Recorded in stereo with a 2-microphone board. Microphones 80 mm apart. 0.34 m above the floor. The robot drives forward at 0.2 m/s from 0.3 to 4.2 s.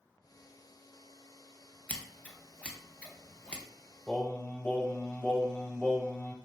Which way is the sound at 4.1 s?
20° left (ahead or behind).